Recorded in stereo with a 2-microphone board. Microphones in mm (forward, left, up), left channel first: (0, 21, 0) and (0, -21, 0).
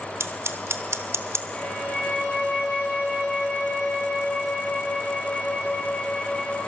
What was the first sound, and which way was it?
Scissors, 85° right.